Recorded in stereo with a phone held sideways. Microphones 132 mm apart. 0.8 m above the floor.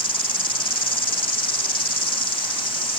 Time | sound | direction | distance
0.0 | an insect | 40° left (ahead or behind) | ?